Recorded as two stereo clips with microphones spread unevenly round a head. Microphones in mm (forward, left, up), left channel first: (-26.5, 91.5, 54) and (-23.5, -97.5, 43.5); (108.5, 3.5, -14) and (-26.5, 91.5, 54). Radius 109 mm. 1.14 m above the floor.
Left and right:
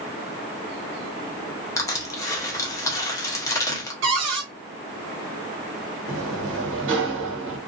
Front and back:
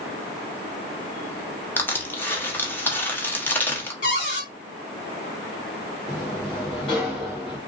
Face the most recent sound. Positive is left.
turn(degrees=-100)